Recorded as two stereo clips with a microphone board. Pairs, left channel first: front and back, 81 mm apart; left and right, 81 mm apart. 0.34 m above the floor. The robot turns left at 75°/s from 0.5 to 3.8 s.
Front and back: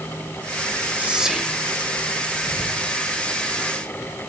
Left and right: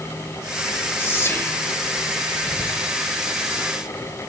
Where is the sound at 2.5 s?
5° right, 7 m; by 2.8 s 30° right, 7 m.